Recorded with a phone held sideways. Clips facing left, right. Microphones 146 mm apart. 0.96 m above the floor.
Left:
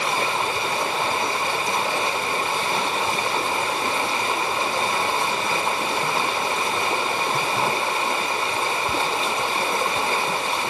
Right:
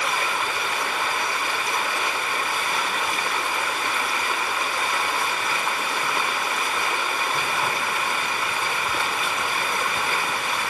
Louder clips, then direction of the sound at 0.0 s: Left 3 dB; 25° left (ahead or behind).